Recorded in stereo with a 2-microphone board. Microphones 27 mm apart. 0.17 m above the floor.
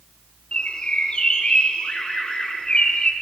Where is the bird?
35° left (ahead or behind), 1.8 m.